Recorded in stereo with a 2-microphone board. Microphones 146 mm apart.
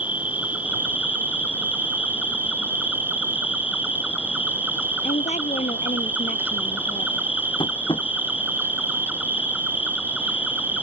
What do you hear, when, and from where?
0.0 s an insect: 10° right (ahead or behind)
5.0 s a woman speaking: 55° left (ahead or behind)
7.6 s tapping: 35° left (ahead or behind)